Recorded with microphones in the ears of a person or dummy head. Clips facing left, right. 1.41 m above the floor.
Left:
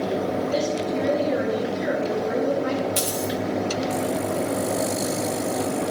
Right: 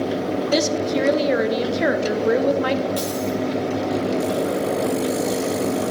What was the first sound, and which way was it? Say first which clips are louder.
A woman speaking: right 4 dB; 70° right (ahead or behind).